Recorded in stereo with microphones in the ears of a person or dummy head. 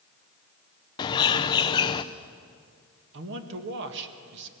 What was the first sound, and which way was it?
A bird, 20° left (ahead or behind).